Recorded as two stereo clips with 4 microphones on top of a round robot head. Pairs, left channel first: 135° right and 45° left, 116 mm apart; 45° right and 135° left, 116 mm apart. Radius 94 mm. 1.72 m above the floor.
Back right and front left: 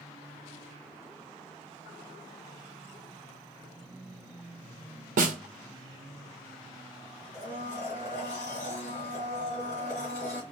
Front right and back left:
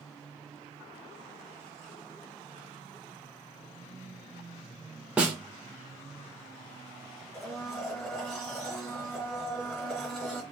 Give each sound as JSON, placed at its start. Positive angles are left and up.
{"t": 5.2, "sound": "a snare drum", "azimuth_deg": 50, "distance_m": 0.7}
{"t": 7.3, "sound": "a blender", "azimuth_deg": -115, "distance_m": 1.9}